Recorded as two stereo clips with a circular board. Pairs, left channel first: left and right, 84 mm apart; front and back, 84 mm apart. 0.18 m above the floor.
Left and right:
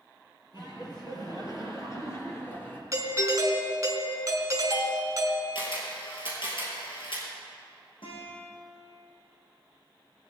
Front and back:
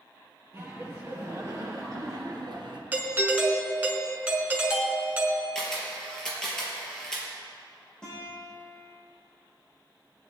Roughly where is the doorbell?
Behind right.